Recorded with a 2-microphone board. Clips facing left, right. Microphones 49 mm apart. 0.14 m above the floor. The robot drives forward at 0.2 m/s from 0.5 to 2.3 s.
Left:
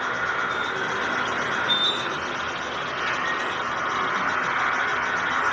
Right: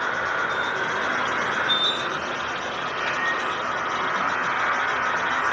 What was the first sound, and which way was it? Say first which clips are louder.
An insect: right 1 dB; 75° right (ahead or behind).